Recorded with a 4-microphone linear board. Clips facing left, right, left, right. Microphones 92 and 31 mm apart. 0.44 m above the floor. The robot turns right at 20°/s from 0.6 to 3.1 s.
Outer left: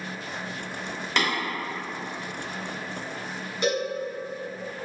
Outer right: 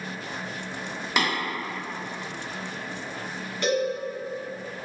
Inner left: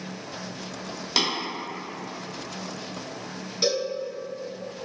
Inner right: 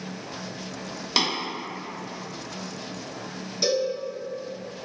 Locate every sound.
1.2 s tapping: 5° right (ahead or behind), 1.1 m; by 1.3 s 10° right (ahead or behind), 1.1 m
3.6 s a cowbell: 15° left (ahead or behind), 1.2 m